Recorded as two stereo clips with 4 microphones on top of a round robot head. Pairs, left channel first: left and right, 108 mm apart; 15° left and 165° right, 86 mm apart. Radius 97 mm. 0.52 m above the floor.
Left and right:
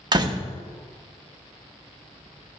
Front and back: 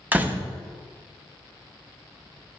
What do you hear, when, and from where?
0.1 s a door slam: 110° right, 0.7 m